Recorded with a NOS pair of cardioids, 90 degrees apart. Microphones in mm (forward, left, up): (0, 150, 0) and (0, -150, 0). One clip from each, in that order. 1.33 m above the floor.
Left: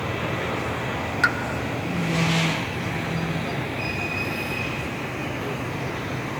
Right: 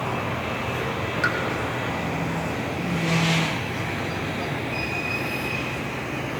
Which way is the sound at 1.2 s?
25° left.